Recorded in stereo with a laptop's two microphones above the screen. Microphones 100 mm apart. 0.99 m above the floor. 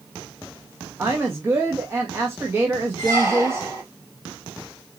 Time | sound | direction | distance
1.0 | a woman speaking | 25° right (ahead or behind) | 1.0 m
3.0 | a squeak | 25° right (ahead or behind) | 4 m